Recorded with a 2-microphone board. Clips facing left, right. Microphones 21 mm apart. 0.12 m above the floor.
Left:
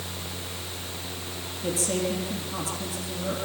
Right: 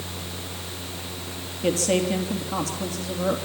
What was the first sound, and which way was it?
A woman speaking, 45° right (ahead or behind).